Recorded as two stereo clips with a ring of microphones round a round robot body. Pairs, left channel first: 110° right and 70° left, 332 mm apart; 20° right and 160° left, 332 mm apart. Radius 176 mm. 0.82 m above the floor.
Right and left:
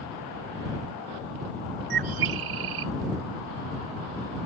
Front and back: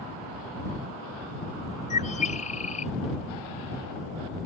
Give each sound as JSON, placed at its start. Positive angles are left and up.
{"t": 1.9, "sound": "a bird", "azimuth_deg": 50}